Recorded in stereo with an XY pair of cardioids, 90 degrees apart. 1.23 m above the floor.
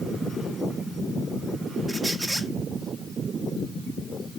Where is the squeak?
20° right, 1.4 m.